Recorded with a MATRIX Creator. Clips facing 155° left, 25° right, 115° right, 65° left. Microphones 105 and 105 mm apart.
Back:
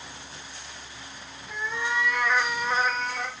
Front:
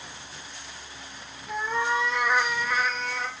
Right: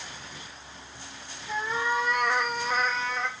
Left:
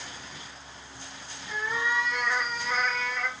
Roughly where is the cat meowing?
Ahead right.